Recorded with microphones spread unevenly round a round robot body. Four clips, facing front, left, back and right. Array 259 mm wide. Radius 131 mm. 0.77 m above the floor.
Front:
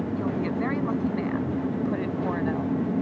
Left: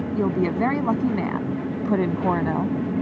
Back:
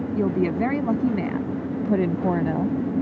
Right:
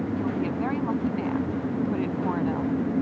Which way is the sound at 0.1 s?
140° left.